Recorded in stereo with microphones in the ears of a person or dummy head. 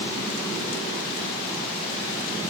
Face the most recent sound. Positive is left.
No sound to turn to.